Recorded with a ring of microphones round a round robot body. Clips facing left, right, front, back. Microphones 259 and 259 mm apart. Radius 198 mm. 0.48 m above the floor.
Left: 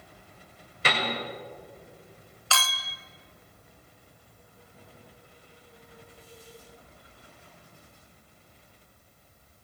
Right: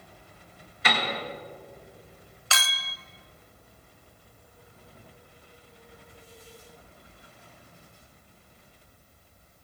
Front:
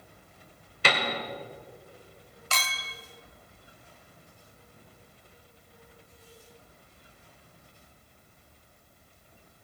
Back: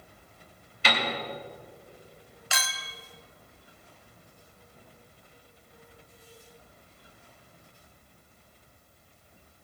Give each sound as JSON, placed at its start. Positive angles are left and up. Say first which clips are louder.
{"t": 0.8, "sound": "a piano", "louder": "even, front 1 dB", "azimuth_deg": 30, "distance_m": 2.0}
{"t": 2.5, "sound": "a clink", "louder": "left 2 dB, front 1 dB", "azimuth_deg": -120, "distance_m": 0.5}